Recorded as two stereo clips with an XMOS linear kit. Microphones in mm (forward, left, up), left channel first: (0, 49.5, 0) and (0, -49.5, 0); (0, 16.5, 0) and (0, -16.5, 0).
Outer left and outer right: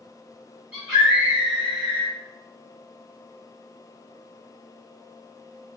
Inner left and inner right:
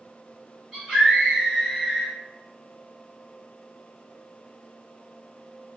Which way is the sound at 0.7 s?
15° right (ahead or behind).